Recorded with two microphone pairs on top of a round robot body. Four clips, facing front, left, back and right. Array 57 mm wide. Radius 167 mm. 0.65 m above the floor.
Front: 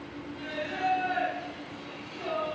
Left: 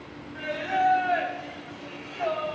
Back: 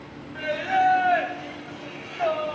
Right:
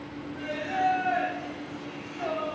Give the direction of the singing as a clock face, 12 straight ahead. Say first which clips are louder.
Left 3 dB, back 11 dB; 6 o'clock.